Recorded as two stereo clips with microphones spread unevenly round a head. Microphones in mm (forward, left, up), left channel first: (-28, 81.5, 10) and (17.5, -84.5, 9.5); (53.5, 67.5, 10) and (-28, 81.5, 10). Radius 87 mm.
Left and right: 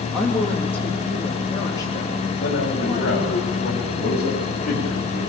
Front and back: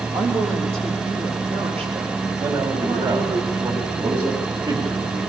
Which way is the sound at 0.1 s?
165° right.